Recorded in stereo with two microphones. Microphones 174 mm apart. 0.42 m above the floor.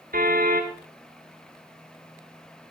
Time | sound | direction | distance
0.1 | a car horn | 55° right (ahead or behind) | 2.5 m